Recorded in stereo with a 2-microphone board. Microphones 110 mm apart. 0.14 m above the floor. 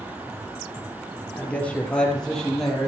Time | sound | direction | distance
1.3 | a man speaking | 15° left (ahead or behind) | 2.5 m